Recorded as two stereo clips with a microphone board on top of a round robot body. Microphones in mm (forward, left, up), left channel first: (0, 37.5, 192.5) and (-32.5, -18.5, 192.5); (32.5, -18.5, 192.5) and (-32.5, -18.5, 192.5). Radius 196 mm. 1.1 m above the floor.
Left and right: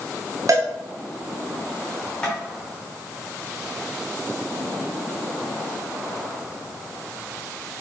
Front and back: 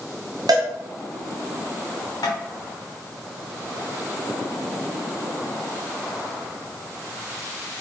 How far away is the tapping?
About 1.1 m.